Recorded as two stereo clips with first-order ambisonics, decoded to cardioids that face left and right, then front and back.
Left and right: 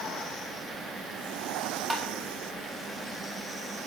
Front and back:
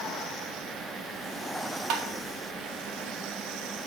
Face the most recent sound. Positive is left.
turn(degrees=180)